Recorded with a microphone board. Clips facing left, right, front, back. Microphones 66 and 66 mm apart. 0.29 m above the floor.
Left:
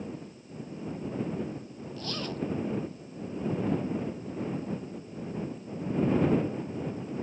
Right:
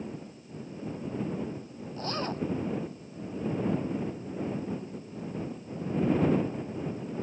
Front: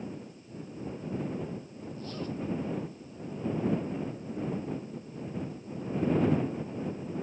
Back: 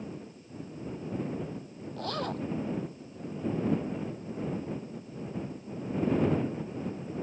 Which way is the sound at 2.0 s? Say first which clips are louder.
Right 3 dB, back 4 dB; 150° right.